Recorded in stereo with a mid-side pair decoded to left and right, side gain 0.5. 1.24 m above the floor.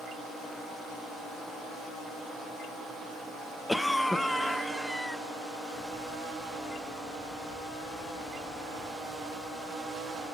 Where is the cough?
5° left, 0.8 m.